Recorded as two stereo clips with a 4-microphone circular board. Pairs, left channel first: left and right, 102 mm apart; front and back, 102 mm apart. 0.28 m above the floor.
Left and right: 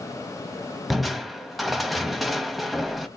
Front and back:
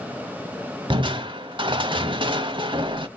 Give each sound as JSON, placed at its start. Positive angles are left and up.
{"t": 0.9, "sound": "crushing", "azimuth_deg": 180, "distance_m": 0.8}